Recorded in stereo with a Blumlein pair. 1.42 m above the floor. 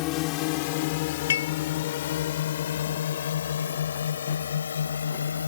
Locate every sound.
0.0 s a drone: 40° left; by 5.5 s 70° left
1.3 s dishes clattering: 65° left